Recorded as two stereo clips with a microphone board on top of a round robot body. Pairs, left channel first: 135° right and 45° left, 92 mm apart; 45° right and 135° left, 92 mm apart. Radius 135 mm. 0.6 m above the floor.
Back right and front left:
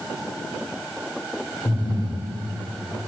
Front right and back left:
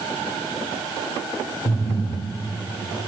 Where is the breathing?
90° right, 9 m.